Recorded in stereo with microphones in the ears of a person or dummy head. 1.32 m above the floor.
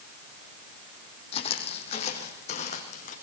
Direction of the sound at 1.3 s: 35° left (ahead or behind).